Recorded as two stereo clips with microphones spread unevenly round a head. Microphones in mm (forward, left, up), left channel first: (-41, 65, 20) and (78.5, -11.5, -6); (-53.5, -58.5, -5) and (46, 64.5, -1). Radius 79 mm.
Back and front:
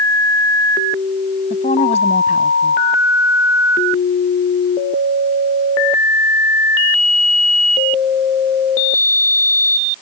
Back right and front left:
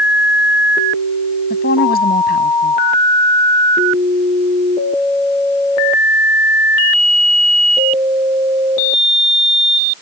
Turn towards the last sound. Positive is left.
turn(degrees=-160)